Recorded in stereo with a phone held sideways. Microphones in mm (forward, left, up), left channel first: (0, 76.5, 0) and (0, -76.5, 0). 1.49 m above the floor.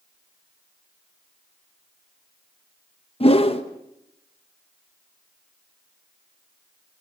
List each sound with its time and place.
3.2 s a whoosh: 40° left (ahead or behind), 1.2 m